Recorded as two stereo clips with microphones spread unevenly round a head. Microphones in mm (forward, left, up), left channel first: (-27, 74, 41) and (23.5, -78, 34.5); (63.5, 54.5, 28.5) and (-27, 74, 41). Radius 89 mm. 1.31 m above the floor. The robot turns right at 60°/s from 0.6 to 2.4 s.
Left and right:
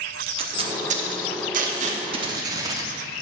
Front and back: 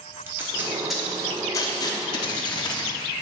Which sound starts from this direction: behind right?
Tape being pulled, at 0.3 s.